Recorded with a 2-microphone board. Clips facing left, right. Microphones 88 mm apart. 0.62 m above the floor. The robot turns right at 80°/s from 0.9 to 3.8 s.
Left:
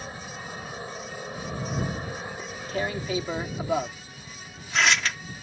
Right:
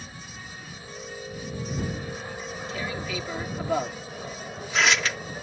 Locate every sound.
0.0 s an aircraft: 55° left; by 5.4 s 70° right
2.4 s tearing paper: 45° left (ahead or behind); by 5.2 s centre (ahead or behind)